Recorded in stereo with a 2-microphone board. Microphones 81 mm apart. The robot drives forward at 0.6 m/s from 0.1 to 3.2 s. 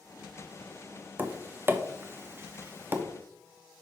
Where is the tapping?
25° right (ahead or behind), 1.0 m.